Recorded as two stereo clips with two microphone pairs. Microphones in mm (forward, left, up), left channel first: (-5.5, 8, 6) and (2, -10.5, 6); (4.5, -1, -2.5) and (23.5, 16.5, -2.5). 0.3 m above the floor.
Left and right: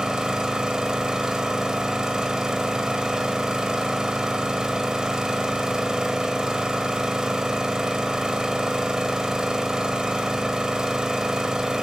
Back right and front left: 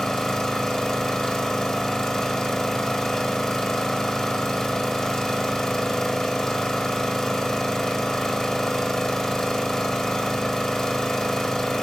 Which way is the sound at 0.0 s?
65° right.